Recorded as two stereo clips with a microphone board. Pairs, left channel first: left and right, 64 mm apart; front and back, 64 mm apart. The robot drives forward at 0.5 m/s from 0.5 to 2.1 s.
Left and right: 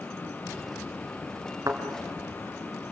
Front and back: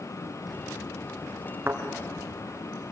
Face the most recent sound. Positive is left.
turn(degrees=-130)